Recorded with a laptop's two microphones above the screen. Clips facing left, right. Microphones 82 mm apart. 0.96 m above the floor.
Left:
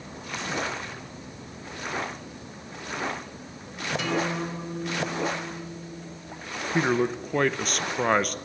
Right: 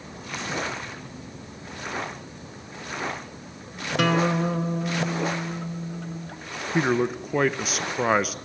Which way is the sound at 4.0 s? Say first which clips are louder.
Right 7 dB; 65° right (ahead or behind).